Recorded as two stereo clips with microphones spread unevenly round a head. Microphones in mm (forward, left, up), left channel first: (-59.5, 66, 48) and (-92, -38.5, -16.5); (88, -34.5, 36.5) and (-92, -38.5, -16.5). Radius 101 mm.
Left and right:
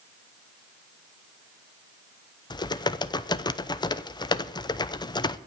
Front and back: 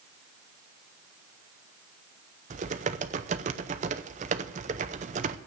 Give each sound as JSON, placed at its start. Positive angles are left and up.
{"t": 2.5, "sound": "typing on a keyboard", "azimuth_deg": 125, "distance_m": 0.7}